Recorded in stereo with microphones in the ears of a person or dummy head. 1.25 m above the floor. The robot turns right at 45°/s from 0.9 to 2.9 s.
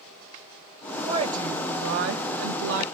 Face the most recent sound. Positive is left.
turn(degrees=-70)